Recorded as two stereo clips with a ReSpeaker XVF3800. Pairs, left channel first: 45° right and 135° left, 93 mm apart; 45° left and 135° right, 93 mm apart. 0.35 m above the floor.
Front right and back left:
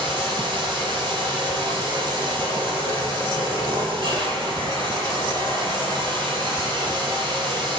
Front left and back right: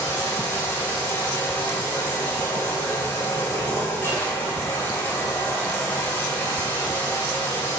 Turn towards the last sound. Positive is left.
turn(degrees=110)